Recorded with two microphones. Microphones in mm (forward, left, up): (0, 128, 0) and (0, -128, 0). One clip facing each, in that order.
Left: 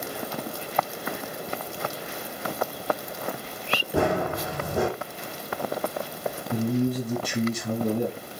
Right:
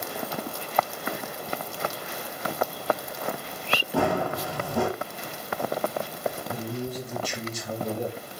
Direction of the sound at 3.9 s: 20° left (ahead or behind).